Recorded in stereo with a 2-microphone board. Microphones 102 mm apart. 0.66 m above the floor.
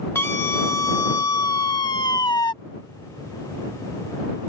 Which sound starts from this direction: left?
A scream, at 0.1 s.